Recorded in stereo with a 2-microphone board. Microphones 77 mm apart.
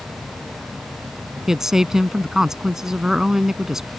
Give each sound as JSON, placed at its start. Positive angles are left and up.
{"t": 1.5, "sound": "a woman speaking", "side_deg": -5}